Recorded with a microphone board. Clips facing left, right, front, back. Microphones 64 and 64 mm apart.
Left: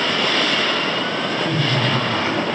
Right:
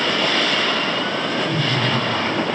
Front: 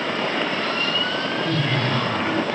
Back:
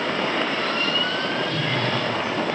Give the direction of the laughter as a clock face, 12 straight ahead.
12 o'clock.